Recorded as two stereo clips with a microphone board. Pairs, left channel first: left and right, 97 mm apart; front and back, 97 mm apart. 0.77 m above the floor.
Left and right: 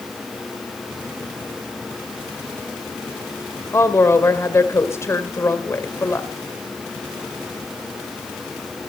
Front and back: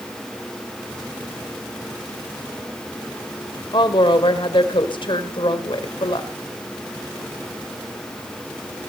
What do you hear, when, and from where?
3.7 s a woman speaking: 30° left, 2.5 m